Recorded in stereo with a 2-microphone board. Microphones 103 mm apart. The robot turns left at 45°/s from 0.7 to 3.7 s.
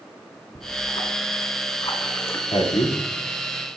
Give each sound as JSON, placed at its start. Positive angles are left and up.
{"t": 0.6, "sound": "a splash", "azimuth_deg": 105, "distance_m": 3.0}
{"t": 2.5, "sound": "a man speaking", "side_deg": 85, "distance_m": 2.0}